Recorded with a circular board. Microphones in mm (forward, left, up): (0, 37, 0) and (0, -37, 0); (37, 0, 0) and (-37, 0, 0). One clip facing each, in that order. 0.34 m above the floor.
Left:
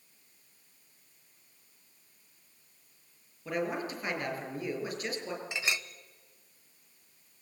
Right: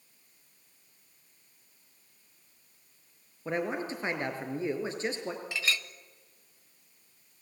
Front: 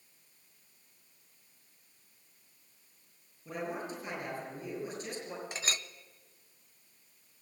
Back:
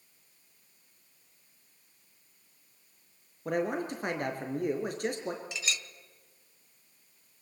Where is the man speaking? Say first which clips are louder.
Right 1 dB, back 7 dB; 155° right, 5 m.